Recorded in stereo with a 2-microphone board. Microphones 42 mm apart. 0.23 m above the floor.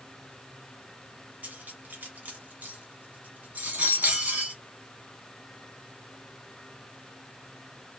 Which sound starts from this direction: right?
Cutlery clinking, at 1.4 s.